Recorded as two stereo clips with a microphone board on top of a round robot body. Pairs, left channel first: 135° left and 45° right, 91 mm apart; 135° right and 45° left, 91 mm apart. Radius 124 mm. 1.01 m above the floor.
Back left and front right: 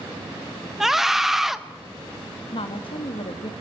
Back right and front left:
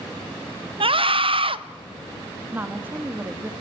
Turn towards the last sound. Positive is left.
turn(degrees=115)